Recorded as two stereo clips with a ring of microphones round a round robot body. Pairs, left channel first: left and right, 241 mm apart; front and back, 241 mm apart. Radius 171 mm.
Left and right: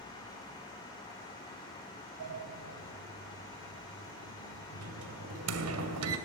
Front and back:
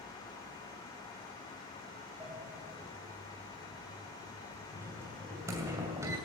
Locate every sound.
2.2 s a sliding door: 100° right, 2.5 m